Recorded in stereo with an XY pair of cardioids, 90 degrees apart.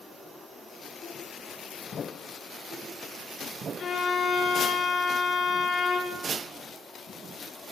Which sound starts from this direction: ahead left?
A violin, at 3.8 s.